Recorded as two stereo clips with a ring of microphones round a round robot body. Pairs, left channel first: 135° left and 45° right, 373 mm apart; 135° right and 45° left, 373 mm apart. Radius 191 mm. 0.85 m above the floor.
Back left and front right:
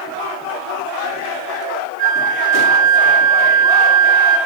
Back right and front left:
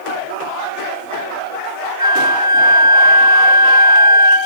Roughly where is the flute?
Ahead right.